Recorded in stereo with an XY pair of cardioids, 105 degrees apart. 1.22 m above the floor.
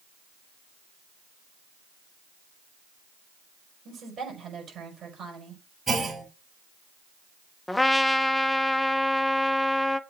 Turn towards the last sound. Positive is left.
turn(degrees=10)